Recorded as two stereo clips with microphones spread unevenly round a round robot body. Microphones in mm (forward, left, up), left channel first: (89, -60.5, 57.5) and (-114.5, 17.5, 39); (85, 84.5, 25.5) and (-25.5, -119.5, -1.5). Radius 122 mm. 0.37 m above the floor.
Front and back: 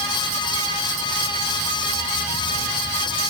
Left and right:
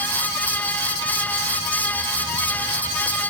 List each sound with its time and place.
Only background noise.